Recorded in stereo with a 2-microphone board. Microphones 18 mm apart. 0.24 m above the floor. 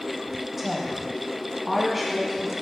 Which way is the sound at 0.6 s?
15° right (ahead or behind).